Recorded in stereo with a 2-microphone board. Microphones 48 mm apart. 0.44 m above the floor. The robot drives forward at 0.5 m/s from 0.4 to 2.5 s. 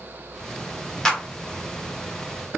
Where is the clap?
10° left (ahead or behind), 1.1 m.